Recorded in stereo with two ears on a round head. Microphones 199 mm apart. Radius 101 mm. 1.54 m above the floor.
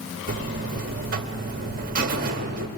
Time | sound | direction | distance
0.3 | a buzzer | 40° right (ahead or behind) | 1.4 m